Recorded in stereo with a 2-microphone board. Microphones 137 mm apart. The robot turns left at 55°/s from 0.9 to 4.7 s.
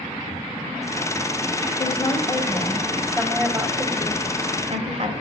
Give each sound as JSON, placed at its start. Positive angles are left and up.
{"t": 1.8, "sound": "a woman speaking", "azimuth_deg": 70, "distance_m": 1.7}